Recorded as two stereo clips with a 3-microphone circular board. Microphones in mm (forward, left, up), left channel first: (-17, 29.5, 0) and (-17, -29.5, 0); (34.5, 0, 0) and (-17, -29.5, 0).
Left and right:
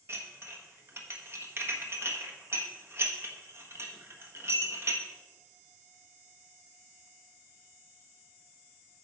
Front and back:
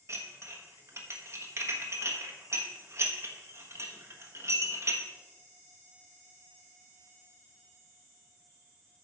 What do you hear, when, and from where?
0.1 s dishes clattering: 120° right, 1.3 m